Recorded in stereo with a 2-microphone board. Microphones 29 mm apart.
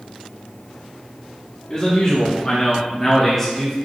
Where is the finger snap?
I don't hear a finger snap.